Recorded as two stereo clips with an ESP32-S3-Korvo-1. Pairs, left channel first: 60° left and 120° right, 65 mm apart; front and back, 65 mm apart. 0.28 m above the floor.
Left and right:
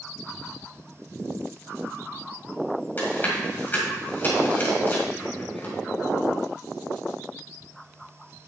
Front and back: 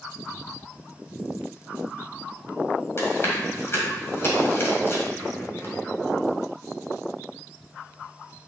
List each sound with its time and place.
3.0 s chewing: 20° left, 2 m